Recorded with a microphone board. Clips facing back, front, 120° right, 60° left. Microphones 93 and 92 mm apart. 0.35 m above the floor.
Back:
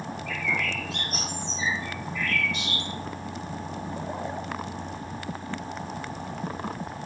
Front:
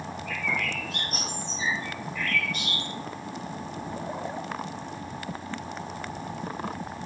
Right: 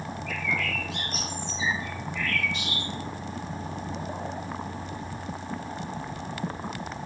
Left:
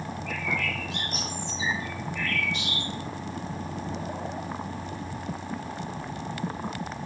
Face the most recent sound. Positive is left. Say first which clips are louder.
# back 1 dB, right 1 dB
turn(degrees=35)